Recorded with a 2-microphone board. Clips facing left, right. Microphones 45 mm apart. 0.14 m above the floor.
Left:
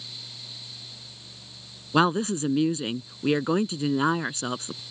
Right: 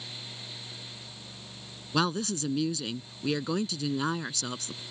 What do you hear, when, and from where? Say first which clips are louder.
1.9 s a woman speaking: left 6 dB; 30° left (ahead or behind)